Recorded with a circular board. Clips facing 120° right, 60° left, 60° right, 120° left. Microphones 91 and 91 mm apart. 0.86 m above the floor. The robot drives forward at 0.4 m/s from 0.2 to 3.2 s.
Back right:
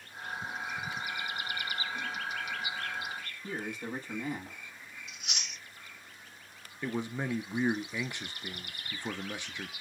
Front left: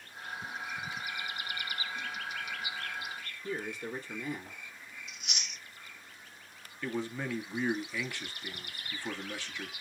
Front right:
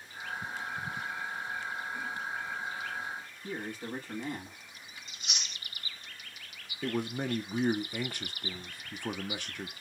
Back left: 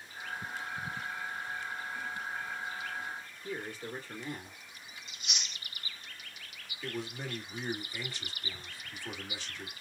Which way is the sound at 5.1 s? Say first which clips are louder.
Even, even; 110° right.